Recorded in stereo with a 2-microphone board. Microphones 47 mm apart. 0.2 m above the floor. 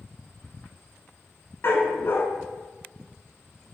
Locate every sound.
1.6 s a dog barking: 55° left (ahead or behind), 0.9 m